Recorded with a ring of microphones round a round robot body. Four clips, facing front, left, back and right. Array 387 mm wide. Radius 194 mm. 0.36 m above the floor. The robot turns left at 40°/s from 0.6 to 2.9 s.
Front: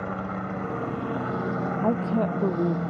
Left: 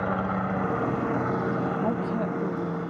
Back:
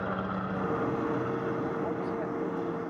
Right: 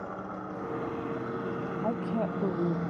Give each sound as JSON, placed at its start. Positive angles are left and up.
{"t": 0.0, "sound": "a helicopter", "azimuth_deg": 80}
{"t": 1.8, "sound": "a woman speaking", "azimuth_deg": 20}